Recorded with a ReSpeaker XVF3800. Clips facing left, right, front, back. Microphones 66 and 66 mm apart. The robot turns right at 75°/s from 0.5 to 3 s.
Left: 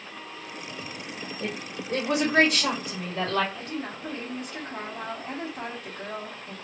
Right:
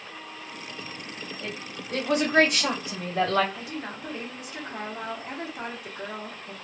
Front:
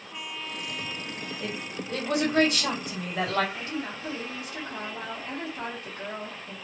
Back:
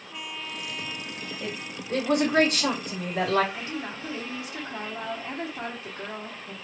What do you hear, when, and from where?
1.4 s a woman speaking: 100° left, 1.5 m; by 3.4 s 140° right, 1.5 m
3.5 s a woman speaking: 160° right, 1.0 m